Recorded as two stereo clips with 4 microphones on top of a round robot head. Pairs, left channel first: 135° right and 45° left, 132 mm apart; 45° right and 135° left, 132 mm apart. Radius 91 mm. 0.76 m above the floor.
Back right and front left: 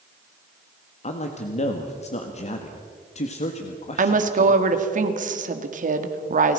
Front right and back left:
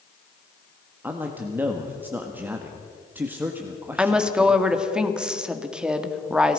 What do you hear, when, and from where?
1.0 s a man speaking: 150° right, 1.7 m
4.0 s a woman speaking: 50° left, 2 m